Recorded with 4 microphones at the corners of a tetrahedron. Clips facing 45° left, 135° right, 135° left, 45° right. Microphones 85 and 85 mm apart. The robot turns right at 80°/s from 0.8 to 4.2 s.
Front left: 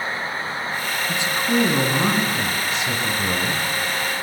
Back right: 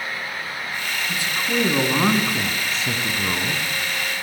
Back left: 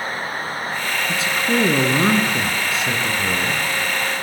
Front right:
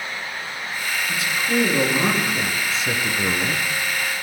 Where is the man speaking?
90° left, 1.7 m; by 3.6 s 65° right, 1.7 m.